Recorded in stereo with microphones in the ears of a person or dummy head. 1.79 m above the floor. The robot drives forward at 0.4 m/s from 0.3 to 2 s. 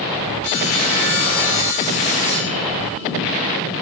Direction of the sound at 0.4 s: 50° left (ahead or behind).